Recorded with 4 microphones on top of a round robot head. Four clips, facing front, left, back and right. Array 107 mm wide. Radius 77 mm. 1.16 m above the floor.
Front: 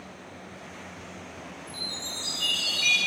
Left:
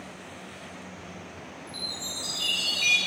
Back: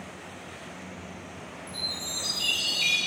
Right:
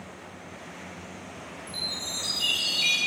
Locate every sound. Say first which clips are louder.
1.7 s a chime: right 1 dB, back 1 dB; 150° right, 4.5 m